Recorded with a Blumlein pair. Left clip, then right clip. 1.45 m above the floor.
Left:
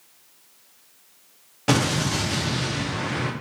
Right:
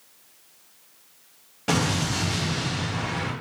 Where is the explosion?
10° left, 0.6 m.